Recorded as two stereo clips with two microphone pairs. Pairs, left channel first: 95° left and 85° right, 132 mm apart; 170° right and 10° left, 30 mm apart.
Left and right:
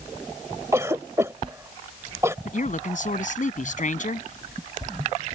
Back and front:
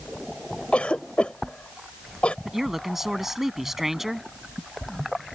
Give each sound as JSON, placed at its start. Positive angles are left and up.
{"t": 0.7, "sound": "a cough", "azimuth_deg": -145}
{"t": 2.5, "sound": "a man speaking", "azimuth_deg": 90}